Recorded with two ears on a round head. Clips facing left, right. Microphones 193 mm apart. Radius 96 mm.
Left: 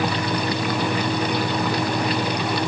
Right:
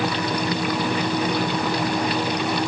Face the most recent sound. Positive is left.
No sound to turn to.